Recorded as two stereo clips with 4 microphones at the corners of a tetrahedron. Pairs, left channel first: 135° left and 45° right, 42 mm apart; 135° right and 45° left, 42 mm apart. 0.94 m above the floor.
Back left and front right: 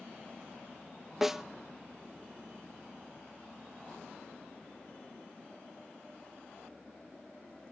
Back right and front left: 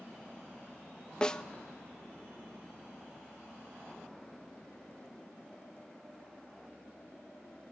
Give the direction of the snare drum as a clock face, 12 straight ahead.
4 o'clock.